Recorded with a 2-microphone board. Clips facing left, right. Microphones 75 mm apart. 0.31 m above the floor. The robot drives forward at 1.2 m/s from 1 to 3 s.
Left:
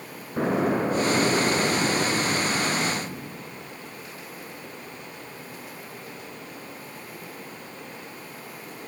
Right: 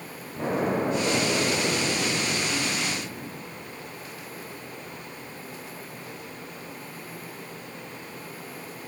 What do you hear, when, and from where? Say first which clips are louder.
0.4 s an explosion: left 3 dB; 70° left (ahead or behind), 4.5 m; by 3.4 s 65° left (ahead or behind), 4.5 m